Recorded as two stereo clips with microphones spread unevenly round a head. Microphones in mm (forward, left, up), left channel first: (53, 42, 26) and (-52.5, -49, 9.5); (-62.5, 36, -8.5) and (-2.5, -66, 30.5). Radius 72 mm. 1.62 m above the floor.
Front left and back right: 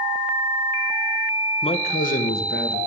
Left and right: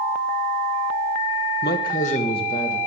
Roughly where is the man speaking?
Left.